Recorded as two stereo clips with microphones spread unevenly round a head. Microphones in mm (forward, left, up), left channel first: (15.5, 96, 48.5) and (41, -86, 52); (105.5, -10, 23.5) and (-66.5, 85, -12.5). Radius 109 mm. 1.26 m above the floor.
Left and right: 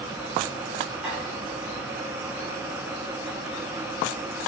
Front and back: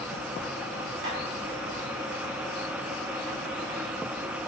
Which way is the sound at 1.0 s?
165° right.